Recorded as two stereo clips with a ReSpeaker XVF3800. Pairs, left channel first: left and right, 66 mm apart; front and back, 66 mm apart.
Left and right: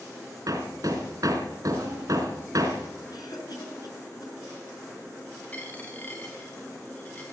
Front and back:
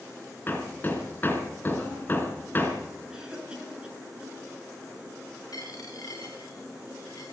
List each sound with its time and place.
0.5 s hammering: 60° right, 3.5 m
3.1 s a cough: 100° left, 7.5 m
5.5 s a dropped coin: 25° left, 5.5 m